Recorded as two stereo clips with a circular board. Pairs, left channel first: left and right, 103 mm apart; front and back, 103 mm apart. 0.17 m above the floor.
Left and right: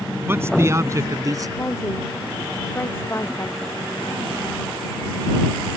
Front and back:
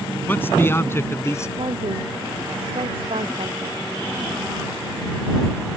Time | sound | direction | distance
0.3 | a man speaking | 50° right | ?
1.6 | a woman speaking | 155° left | ?